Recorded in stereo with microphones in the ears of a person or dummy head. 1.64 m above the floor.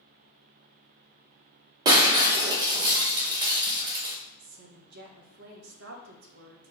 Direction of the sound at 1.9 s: 25° right (ahead or behind).